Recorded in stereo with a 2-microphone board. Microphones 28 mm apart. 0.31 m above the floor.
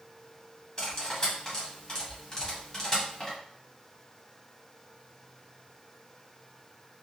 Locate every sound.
0.8 s cutlery clinking: 30° left (ahead or behind), 1.4 m